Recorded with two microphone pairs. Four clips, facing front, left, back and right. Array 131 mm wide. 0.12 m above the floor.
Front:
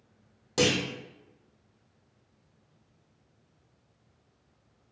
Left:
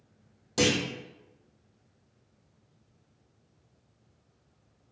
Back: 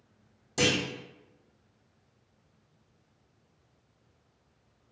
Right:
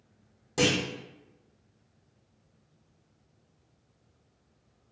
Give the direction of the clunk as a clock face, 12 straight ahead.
12 o'clock.